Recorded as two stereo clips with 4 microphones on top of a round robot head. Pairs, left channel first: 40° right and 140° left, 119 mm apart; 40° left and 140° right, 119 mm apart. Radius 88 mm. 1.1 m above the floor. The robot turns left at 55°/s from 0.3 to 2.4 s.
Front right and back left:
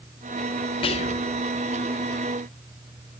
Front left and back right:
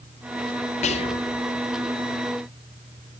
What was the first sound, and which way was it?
Whispering, 10° left.